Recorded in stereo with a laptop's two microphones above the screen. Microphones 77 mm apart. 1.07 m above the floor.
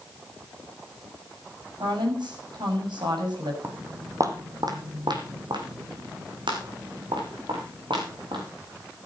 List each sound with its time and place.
1.8 s a woman speaking: 65° right (ahead or behind), 7 m
3.6 s footsteps: 25° right (ahead or behind), 2.5 m; by 8.4 s 75° right (ahead or behind), 6.5 m